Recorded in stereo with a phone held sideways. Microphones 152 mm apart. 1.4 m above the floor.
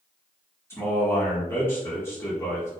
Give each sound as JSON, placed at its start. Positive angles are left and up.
{"t": 0.7, "sound": "a man speaking", "side_deg": 15, "distance_m": 1.7}